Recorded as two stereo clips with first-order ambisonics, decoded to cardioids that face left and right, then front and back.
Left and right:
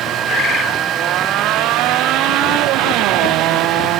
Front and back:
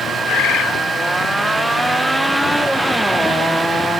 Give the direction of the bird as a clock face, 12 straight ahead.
11 o'clock.